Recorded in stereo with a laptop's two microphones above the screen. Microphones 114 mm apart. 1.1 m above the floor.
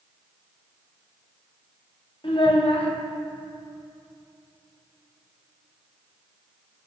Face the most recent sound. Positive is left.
turn(degrees=55)  # may be behind; listen again after turning